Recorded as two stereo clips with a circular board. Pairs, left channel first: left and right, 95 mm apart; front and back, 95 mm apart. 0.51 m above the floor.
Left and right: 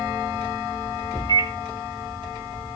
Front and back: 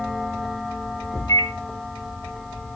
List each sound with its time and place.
1.3 s a microwave: 50° left, 1.8 m